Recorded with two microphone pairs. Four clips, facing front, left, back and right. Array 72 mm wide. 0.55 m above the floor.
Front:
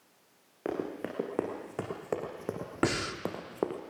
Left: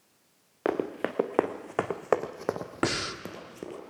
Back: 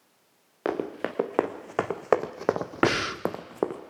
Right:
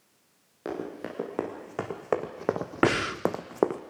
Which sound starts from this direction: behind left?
Running footsteps, at 0.7 s.